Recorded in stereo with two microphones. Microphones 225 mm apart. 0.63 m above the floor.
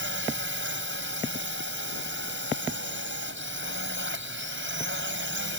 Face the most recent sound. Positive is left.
turn(degrees=-60)  # may be behind; listen again after turning